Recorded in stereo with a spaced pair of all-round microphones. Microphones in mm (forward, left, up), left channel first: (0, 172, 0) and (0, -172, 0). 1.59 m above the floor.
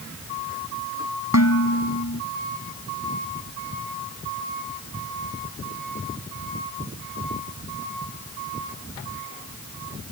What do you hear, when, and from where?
1.3 s dishes clattering: 55° left (ahead or behind)